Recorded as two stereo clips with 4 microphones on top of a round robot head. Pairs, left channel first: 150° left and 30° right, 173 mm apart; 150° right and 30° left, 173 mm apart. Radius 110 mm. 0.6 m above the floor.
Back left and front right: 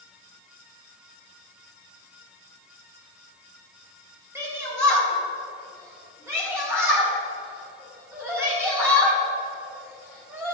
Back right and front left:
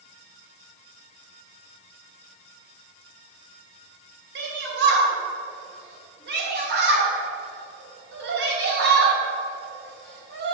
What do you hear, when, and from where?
4.3 s a shout: 45° left, 3.5 m